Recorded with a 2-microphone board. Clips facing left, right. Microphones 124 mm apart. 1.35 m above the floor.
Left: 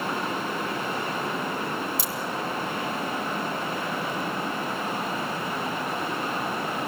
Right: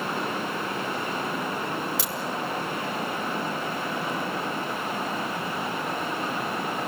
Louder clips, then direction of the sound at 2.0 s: Even; 85° right.